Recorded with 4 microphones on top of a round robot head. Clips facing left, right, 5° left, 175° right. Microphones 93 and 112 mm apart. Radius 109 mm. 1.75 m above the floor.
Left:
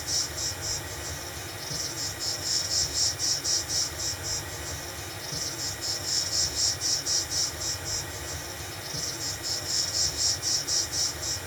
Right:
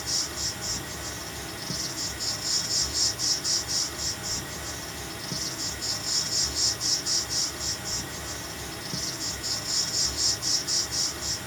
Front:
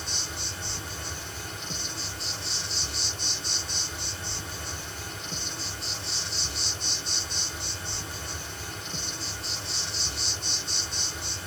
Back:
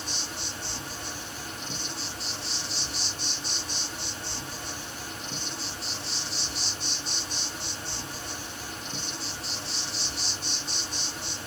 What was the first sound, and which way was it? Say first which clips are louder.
An insect: right 1 dB, back 1 dB; 95° right.